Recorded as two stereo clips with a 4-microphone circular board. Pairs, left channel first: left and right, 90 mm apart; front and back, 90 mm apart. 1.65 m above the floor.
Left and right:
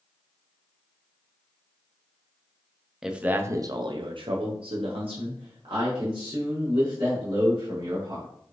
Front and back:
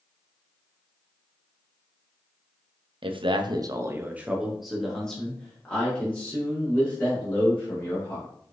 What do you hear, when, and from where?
3.0 s a man speaking: 175° right, 0.6 m; by 8.3 s 65° right, 3 m